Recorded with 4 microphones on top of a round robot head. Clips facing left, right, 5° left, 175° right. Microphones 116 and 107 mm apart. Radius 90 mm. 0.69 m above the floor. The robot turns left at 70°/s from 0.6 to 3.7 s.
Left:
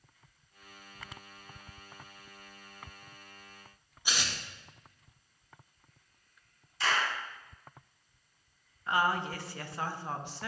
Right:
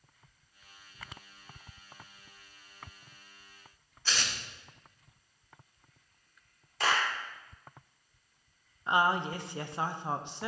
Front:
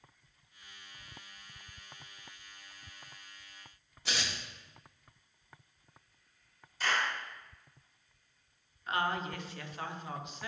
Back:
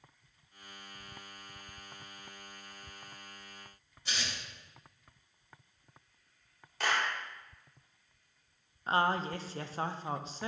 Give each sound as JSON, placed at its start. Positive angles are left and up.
{"t": 4.0, "sound": "tearing paper", "azimuth_deg": 15, "distance_m": 1.3}
{"t": 6.8, "sound": "a clap", "azimuth_deg": -140, "distance_m": 1.6}
{"t": 8.9, "sound": "a woman speaking", "azimuth_deg": -145, "distance_m": 0.6}